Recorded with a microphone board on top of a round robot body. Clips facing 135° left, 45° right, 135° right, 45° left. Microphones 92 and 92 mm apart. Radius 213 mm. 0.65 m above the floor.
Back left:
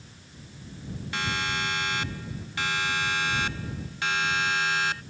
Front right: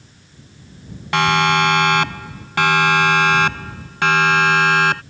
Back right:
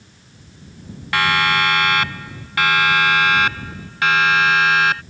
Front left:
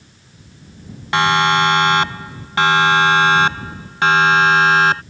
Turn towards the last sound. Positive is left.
turn(degrees=-15)